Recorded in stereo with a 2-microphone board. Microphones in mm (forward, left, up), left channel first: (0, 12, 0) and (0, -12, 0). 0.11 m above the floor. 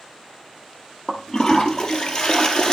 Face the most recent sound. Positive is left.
turn(degrees=25)  # may be behind; listen again after turning